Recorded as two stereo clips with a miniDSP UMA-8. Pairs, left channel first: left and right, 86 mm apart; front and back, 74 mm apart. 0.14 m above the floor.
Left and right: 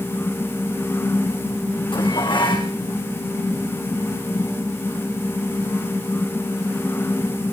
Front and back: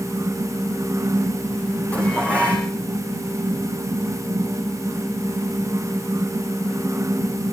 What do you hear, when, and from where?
1.9 s dishes clattering: 70° left, 6 m